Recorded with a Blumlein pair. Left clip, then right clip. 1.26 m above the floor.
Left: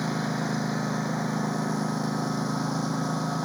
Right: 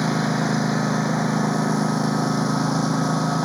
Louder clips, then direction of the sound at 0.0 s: Right 7 dB; 70° right.